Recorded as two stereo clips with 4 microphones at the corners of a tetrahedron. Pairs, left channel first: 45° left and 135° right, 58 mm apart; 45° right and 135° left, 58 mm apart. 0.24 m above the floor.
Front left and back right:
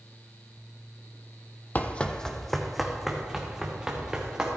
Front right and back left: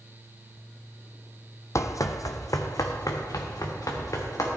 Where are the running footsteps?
15° right, 0.6 m; by 4.5 s 60° right, 2.5 m.